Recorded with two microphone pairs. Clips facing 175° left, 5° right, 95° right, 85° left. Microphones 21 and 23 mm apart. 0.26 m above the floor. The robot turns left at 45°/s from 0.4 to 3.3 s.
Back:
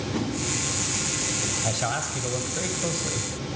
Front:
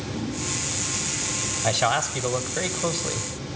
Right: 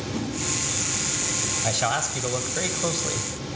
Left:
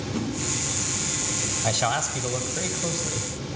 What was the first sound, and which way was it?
A whoosh, 175° right.